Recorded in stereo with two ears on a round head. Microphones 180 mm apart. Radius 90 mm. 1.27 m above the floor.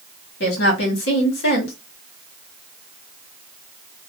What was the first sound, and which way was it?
A woman speaking, 55° left (ahead or behind).